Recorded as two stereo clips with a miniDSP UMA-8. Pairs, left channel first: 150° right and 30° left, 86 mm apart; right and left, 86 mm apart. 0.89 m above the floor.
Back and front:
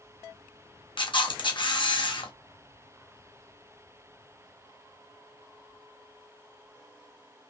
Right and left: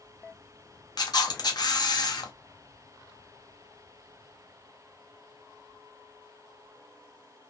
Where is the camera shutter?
130° right, 0.7 m.